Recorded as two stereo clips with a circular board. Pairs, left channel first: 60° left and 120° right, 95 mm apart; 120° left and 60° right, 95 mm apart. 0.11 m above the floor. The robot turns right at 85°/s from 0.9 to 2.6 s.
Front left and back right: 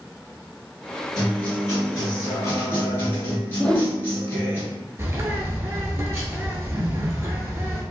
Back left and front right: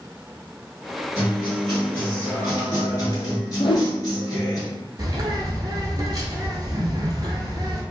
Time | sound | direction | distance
1.1 | a guitar | 20° right | 1.5 m
3.6 | a whoosh | 140° left | 0.6 m
5.0 | a bird | 75° right | 0.6 m